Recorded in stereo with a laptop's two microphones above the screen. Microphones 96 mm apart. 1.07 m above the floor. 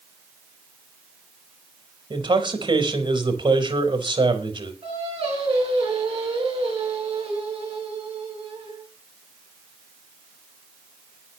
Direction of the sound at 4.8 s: 75° right (ahead or behind).